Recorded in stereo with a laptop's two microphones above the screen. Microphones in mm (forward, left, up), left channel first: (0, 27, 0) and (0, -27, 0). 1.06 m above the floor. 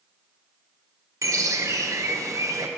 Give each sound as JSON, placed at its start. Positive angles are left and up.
{"t": 1.2, "sound": "a bird", "side_deg": -75, "distance_m": 0.5}